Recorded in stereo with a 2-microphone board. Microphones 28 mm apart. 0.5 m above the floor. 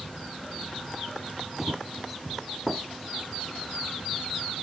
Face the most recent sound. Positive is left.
turn(degrees=-15)  # may be behind; listen again after turning